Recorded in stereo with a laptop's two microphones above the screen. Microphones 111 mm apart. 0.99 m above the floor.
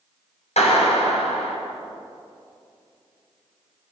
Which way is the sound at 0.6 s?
80° left.